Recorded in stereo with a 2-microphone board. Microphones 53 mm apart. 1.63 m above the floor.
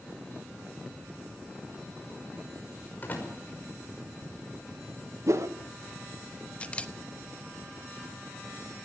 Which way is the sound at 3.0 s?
35° left (ahead or behind).